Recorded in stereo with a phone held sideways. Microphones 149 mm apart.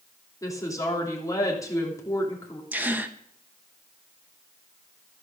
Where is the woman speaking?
20° left (ahead or behind), 3 m.